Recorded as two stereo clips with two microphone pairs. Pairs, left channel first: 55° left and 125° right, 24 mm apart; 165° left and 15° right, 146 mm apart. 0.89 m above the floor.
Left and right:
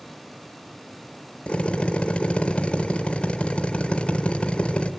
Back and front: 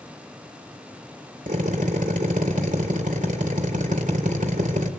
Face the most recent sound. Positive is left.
turn(degrees=20)